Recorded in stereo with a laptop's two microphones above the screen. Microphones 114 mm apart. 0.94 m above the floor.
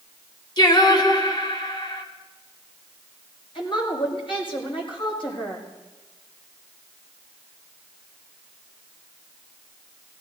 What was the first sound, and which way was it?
Singing, 40° left (ahead or behind).